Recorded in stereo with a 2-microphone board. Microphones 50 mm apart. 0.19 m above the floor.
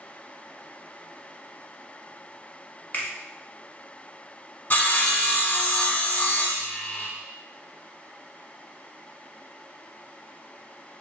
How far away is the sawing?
About 0.7 m.